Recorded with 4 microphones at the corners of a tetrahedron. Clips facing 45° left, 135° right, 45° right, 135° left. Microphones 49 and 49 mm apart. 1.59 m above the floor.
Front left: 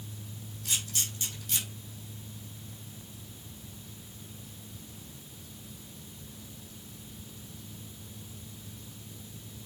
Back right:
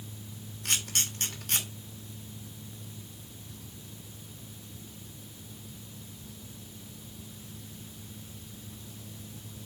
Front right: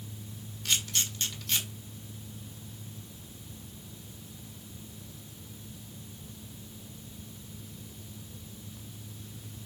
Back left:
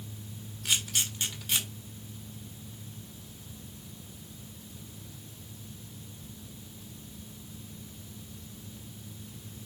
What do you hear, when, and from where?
0.7 s a camera shutter: 150° right, 2 m